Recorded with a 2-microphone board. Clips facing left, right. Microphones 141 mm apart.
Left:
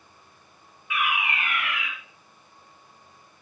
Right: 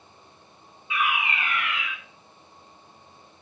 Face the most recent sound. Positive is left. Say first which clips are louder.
# right 1 dB
turn(degrees=-25)  # may be behind; listen again after turning